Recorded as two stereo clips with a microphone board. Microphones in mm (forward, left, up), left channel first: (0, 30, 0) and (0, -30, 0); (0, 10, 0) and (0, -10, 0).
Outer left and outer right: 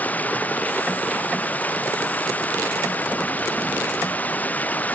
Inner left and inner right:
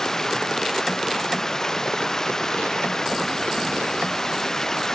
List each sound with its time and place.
0.0 s running water: 25° left (ahead or behind)